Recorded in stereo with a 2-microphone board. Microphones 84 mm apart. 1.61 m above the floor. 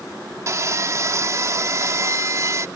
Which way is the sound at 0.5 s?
40° right (ahead or behind).